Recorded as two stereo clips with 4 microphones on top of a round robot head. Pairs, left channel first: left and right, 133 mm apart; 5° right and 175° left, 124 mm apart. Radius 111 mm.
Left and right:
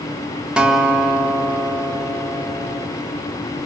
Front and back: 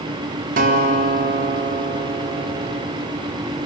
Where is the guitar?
175° right, 1.4 m.